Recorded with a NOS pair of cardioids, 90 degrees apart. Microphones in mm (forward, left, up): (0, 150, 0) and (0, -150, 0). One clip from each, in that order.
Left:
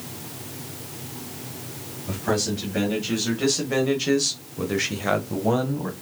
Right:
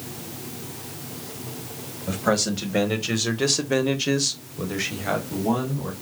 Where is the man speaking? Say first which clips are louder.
Right 2 dB; 55° right, 2 m; by 5.9 s 60° left, 1.5 m.